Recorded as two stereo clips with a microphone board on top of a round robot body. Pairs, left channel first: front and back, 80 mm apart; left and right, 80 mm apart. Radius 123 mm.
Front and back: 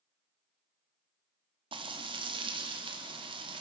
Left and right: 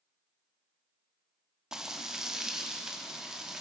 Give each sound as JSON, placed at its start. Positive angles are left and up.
{"t": 1.7, "sound": "frying", "azimuth_deg": -175, "distance_m": 1.0}